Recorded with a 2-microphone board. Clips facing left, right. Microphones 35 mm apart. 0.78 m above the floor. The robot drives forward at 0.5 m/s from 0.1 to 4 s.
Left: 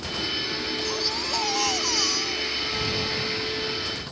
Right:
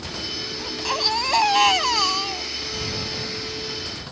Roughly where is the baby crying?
Right.